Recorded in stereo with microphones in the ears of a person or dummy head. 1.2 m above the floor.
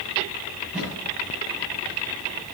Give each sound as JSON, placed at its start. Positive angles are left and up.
{"t": 0.6, "sound": "a thud", "side_deg": -10, "distance_m": 7.5}